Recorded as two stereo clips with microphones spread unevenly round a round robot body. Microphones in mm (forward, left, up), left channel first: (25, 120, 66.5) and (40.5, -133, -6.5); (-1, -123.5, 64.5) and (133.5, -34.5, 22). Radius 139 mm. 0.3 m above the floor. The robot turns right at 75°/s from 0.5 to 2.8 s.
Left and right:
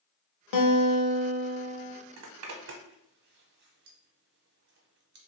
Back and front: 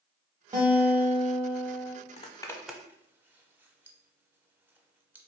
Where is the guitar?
95° left, 0.6 m; by 1.9 s 160° right, 0.6 m.